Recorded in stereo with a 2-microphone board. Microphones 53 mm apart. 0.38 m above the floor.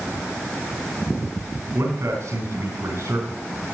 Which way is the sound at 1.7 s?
65° right (ahead or behind).